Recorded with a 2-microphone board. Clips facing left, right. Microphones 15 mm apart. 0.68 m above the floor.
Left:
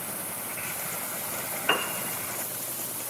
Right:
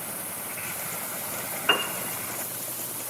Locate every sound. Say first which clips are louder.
1.7 s a piano: right 2 dB; 15° right (ahead or behind), 0.5 m